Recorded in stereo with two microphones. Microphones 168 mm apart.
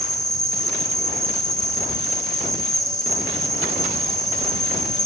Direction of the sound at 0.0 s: Centre (ahead or behind).